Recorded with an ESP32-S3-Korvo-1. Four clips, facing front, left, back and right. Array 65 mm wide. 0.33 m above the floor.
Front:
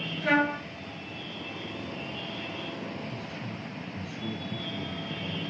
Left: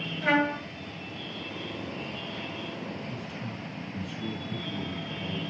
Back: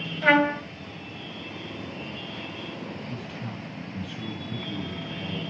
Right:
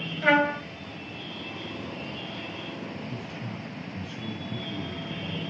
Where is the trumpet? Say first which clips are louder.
Right 3 dB, back 5 dB; 150° right, 2 m.